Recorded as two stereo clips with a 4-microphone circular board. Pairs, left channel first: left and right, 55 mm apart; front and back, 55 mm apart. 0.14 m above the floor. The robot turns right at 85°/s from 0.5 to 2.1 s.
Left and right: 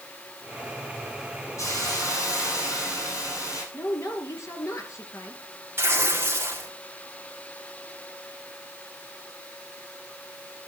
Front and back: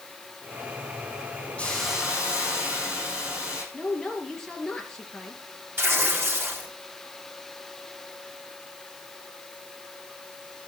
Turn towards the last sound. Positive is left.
turn(degrees=-140)